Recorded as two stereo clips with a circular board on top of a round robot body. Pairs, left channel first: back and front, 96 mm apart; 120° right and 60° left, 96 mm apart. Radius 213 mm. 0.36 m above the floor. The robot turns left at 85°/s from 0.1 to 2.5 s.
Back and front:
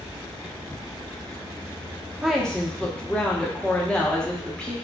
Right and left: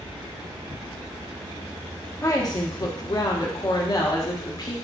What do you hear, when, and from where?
2.2 s a woman speaking: 80° right, 1.0 m; by 4.7 s 105° right, 1.0 m